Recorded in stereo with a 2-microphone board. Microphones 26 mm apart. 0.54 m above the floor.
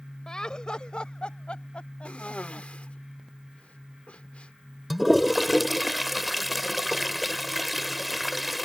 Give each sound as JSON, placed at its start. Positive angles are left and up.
{"t": 0.3, "sound": "laughter", "side_deg": 25}
{"t": 2.0, "sound": "a cough", "side_deg": 50}
{"t": 4.9, "sound": "a toilet flushing", "side_deg": 0}